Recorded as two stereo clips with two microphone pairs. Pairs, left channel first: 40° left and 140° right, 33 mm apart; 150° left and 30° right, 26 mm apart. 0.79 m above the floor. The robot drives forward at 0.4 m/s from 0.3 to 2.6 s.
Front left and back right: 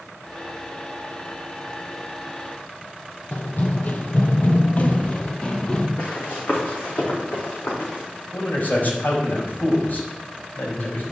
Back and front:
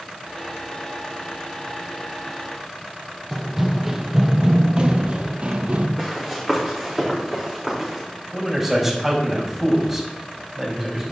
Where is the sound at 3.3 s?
60° left, 1.4 m; by 5.9 s 20° right, 1.3 m.